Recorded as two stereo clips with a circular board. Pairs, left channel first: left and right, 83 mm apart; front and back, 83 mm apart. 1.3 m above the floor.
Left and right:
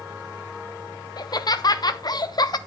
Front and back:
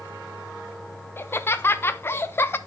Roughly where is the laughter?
Ahead left.